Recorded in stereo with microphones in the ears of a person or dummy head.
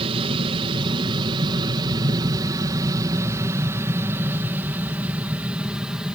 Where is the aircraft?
30° right (ahead or behind); by 6.2 s centre (ahead or behind).